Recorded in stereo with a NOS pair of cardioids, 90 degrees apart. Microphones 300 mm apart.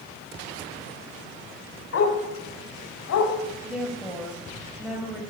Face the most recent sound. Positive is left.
turn(degrees=0)